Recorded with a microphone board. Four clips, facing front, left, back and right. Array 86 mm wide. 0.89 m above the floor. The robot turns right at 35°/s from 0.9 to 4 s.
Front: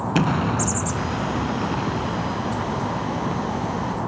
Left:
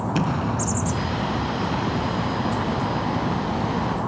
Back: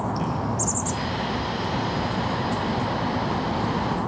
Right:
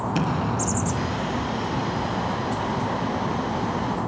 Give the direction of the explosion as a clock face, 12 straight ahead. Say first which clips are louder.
Left 1 dB, front 5 dB; 12 o'clock.